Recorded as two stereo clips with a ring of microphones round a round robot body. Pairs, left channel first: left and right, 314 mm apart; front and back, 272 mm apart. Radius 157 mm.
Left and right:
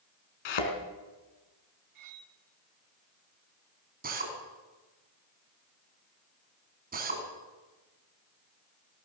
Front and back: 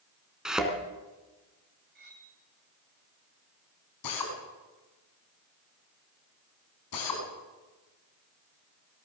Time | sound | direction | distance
0.5 | a thud | 90° left | 4 m
1.9 | cutlery clinking | 120° right | 3 m
4.0 | a drill | 25° right | 5.5 m